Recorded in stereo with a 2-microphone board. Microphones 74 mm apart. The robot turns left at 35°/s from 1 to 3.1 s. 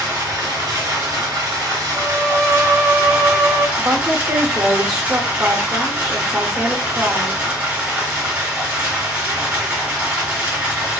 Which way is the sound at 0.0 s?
80° right.